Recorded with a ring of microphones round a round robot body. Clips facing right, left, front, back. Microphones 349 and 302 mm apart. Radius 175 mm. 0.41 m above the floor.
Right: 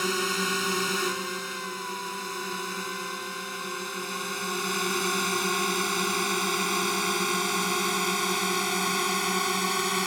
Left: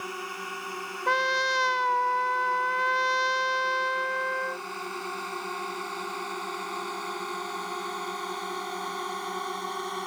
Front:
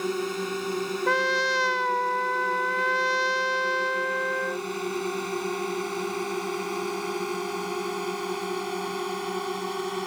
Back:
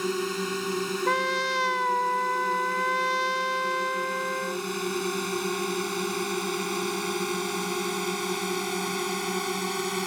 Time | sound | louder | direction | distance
0.0 | a drone | right 9 dB, even | 110° right | ?
1.1 | a trumpet | left 3 dB, front 2 dB | 105° left | ?